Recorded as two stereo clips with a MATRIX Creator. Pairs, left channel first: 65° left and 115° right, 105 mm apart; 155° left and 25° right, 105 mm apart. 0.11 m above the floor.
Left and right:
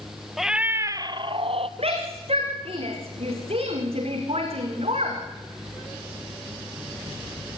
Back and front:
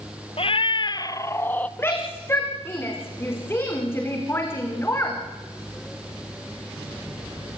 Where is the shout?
135° right, 7 m.